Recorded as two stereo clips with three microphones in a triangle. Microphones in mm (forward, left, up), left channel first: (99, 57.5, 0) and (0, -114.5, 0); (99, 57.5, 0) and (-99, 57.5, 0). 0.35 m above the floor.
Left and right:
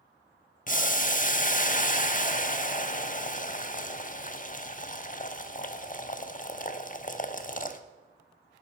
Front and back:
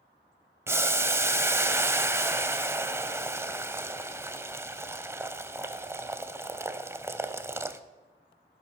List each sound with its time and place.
0.7 s boiling: 100° left, 0.5 m